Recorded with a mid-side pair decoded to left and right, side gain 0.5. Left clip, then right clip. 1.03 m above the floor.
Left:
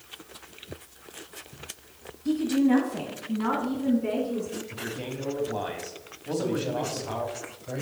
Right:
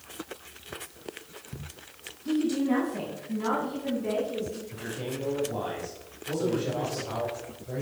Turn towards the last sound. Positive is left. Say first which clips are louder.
# even
turn(degrees=55)